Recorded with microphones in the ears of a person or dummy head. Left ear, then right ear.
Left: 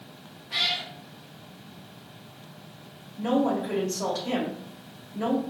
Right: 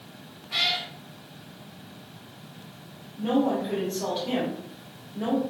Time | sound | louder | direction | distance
0.5 | a cat meowing | right 1 dB | 5° left (ahead or behind) | 1.9 m
3.2 | a woman speaking | even | 65° left (ahead or behind) | 1.8 m